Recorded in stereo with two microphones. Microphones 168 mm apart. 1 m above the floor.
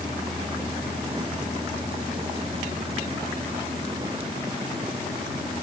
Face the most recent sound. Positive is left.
No sound to turn to.